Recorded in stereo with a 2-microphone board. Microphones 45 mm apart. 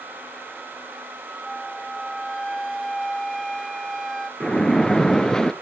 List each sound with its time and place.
1.4 s a flute: 5° left (ahead or behind), 0.7 m
4.4 s a splash: 15° left (ahead or behind), 0.8 m